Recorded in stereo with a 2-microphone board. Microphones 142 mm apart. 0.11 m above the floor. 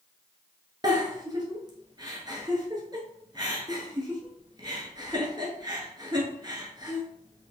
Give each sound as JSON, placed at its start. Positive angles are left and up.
{"t": 0.8, "sound": "a giggle", "side_deg": -30, "distance_m": 0.9}